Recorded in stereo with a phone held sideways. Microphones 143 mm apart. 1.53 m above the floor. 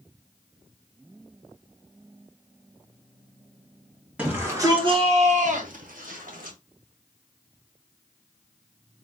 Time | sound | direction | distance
4.2 | a shout | 10° right (ahead or behind) | 1.4 m